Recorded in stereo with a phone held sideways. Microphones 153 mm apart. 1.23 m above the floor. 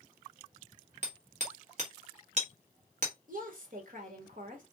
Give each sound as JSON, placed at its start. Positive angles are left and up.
{"t": 1.0, "sound": "hammering", "side_deg": -50, "distance_m": 1.4}
{"t": 3.3, "sound": "a woman speaking", "side_deg": -60, "distance_m": 1.4}